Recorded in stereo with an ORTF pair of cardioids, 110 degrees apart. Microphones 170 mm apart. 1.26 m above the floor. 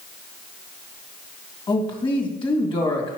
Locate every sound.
1.7 s a man speaking: 30° left, 2 m